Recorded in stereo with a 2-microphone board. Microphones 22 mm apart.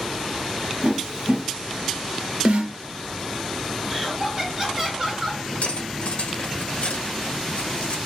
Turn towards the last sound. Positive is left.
turn(degrees=75)  # may be behind; listen again after turning